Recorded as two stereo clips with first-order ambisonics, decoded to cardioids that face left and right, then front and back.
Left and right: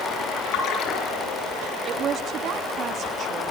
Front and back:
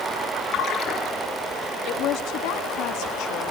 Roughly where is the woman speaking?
Ahead right.